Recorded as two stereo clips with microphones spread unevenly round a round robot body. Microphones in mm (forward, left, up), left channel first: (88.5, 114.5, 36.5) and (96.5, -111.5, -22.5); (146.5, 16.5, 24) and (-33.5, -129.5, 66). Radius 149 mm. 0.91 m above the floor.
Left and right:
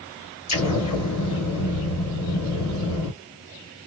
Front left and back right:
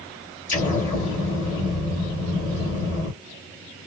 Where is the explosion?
115° left, 1.5 m.